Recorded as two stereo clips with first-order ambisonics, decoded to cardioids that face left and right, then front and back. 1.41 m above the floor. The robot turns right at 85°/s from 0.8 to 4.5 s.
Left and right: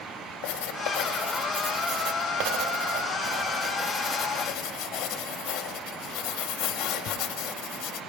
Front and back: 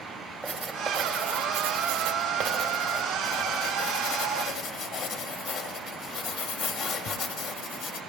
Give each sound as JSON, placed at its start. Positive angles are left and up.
{"t": 0.4, "sound": "writing", "azimuth_deg": 100, "distance_m": 0.8}